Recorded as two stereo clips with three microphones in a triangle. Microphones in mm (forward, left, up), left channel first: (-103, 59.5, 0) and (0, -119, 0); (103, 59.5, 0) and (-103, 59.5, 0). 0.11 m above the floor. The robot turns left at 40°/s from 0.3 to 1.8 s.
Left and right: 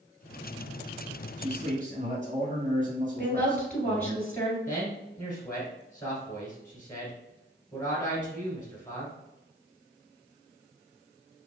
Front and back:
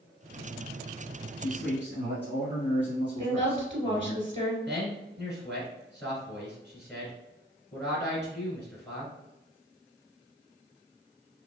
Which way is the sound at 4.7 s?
60° left.